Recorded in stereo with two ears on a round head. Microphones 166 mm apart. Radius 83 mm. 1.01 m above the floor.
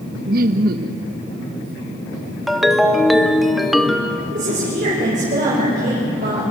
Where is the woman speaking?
45° right (ahead or behind), 5.5 m.